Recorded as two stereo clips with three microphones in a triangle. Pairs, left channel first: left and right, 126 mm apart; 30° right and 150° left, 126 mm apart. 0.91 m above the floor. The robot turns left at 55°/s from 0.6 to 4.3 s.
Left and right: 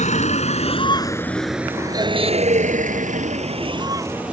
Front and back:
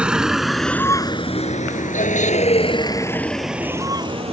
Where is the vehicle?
70° left; by 4.3 s 170° right.